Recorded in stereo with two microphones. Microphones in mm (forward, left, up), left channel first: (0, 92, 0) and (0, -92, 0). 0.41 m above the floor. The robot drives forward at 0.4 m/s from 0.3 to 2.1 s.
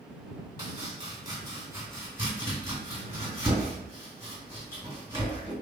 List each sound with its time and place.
0.6 s chopping: 25° right (ahead or behind), 1.5 m; by 5.5 s 20° right (ahead or behind), 2 m